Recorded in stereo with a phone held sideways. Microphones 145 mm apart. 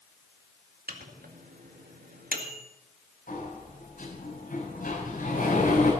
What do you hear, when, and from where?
0.9 s a microwave: 85° right, 2 m
3.3 s a sliding door: 70° left (ahead or behind), 6 m